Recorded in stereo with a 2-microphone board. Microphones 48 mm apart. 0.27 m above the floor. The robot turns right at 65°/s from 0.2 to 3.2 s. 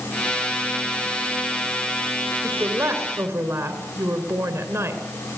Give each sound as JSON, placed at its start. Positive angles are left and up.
{"t": 2.4, "sound": "a woman speaking", "azimuth_deg": -130, "distance_m": 4.0}